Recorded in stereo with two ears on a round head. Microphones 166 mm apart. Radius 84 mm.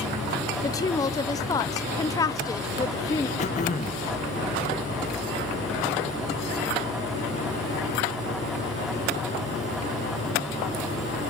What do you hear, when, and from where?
0.6 s a woman speaking: 20° left (ahead or behind), 0.9 m
3.4 s throat clearing: 40° left (ahead or behind), 1.9 m